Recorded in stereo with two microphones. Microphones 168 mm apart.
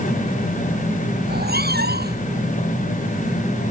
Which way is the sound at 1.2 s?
75° right (ahead or behind).